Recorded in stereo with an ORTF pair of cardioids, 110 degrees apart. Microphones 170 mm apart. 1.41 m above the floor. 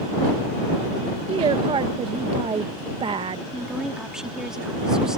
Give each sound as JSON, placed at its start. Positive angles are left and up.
{"t": 1.3, "sound": "a woman speaking", "azimuth_deg": -35}
{"t": 3.5, "sound": "a woman speaking", "azimuth_deg": -5}